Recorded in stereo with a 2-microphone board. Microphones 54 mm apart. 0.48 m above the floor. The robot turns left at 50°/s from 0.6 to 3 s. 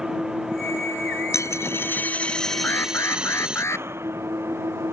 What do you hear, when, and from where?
0.0 s an engine running: 10° right; by 4.9 s 130° right
1.3 s a dropped coin: 65° left; by 3.6 s 15° right
2.6 s an alarm: 35° left (ahead or behind); by 3.9 s 55° left (ahead or behind)